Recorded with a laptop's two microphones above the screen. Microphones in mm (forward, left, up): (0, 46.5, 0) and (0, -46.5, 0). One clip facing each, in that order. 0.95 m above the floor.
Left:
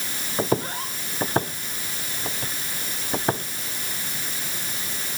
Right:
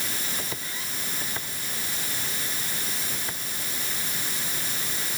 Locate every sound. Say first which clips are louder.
0.4 s footsteps: left 12 dB; 50° left (ahead or behind); by 3.4 s 55° left (ahead or behind)